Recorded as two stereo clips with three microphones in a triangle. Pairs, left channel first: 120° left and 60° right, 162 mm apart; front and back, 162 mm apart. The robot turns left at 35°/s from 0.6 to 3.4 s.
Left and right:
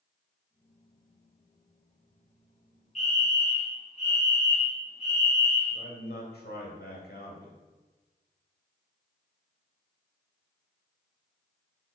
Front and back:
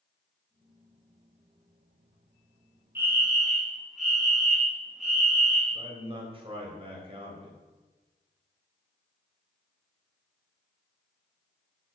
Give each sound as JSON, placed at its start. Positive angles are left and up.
{"t": 3.0, "sound": "a fire alarm", "azimuth_deg": 110, "distance_m": 2.5}
{"t": 5.7, "sound": "a man speaking", "azimuth_deg": 125, "distance_m": 3.0}